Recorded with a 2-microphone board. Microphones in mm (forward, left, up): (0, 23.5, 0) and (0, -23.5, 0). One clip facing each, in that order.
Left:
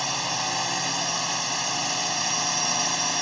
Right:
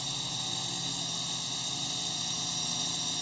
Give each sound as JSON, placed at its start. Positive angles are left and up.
{"t": 0.0, "sound": "a drone", "side_deg": 65}